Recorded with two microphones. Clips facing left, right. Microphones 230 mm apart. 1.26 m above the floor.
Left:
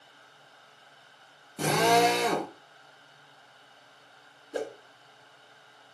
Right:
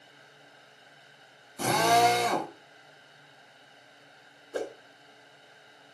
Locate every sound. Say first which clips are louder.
1.6 s a drill: left 1 dB; 65° left (ahead or behind), 4.5 m
4.5 s a whoosh: even; 15° left (ahead or behind), 3 m